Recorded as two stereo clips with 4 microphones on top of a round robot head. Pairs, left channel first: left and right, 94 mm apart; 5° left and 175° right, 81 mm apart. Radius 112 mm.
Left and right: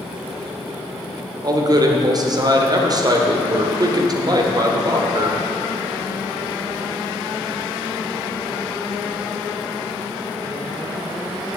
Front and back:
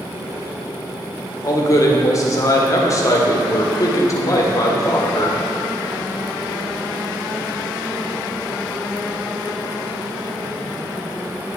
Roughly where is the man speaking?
Ahead right.